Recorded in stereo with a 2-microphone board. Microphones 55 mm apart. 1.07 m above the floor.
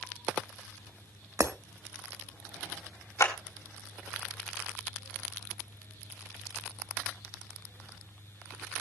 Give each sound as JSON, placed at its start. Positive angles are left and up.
{"t": 1.4, "sound": "breaking glass", "side_deg": -65, "distance_m": 1.5}
{"t": 3.2, "sound": "a clap", "side_deg": 65, "distance_m": 4.5}